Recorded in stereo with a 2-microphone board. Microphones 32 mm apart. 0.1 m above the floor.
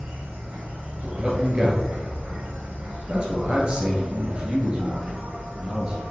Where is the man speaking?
30° right (ahead or behind), 1.6 m.